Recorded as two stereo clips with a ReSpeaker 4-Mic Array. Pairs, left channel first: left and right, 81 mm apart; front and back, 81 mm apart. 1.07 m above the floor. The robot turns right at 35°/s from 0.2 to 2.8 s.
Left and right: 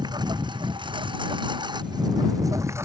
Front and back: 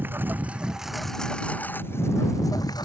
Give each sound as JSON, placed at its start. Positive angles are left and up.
{"t": 0.0, "sound": "a lawn mower", "azimuth_deg": -115}